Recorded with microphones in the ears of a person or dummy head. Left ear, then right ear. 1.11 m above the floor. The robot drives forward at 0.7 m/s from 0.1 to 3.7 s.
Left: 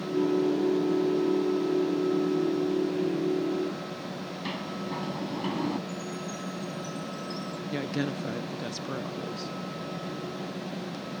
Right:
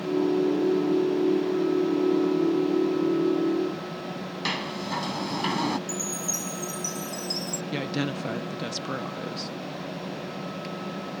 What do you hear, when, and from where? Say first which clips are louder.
4.5 s a sliding door: right 7 dB; 65° right (ahead or behind)
5.9 s a chime: right 5 dB; 70° right (ahead or behind)
7.7 s a woman speaking: right 1 dB; 20° right (ahead or behind)